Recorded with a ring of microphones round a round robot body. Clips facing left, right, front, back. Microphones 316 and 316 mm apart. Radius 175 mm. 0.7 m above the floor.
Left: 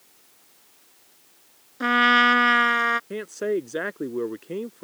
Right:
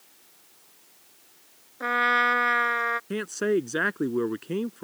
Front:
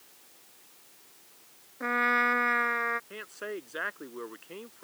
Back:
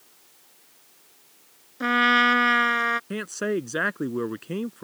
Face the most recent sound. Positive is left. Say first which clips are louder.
# right 1 dB, back 12 dB
turn(degrees=-155)